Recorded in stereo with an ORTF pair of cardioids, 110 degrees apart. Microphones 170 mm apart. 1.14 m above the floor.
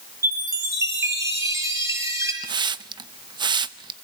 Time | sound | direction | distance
0.2 | a chime | 20° right | 5.5 m
2.4 | a hiss | 25° right | 0.7 m